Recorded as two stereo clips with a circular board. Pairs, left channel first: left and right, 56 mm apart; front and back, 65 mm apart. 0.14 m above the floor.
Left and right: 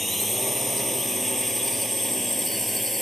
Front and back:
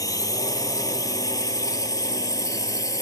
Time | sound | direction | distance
0.0 | a drone | straight ahead | ?